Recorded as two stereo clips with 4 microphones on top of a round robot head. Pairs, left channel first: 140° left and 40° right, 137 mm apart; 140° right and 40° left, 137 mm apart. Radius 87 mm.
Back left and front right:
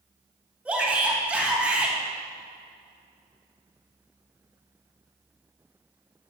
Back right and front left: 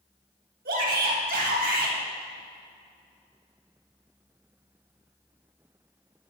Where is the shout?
40° left, 3 m.